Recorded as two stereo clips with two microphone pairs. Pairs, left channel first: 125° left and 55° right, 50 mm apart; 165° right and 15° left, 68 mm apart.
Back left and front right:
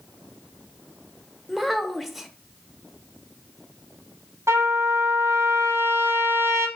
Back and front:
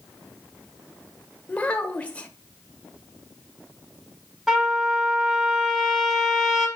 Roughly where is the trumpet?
Ahead right.